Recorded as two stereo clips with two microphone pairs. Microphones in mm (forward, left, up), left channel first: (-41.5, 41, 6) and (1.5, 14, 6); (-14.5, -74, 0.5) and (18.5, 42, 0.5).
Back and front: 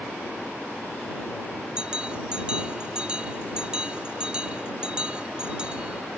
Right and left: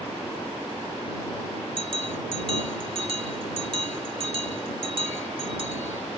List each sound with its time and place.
1.8 s a bell: 40° left